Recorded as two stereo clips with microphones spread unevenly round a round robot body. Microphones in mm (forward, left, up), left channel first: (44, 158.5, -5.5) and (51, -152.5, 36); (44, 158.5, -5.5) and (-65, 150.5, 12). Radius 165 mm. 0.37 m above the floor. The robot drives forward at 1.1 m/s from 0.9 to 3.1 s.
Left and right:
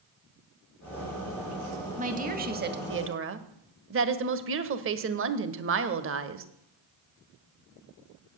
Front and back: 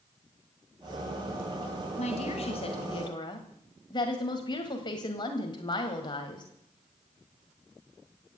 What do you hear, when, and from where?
2.0 s a woman speaking: 20° right, 2.5 m; by 6.5 s 40° right, 1.5 m